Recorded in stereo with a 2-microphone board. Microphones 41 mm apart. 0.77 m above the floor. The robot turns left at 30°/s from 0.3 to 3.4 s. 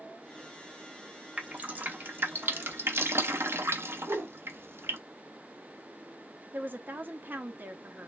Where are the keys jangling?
I don't hear keys jangling.